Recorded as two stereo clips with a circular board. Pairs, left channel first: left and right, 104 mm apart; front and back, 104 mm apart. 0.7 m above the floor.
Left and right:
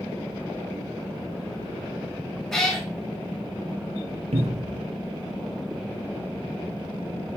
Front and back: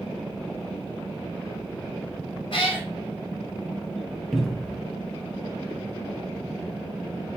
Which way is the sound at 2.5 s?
5° left.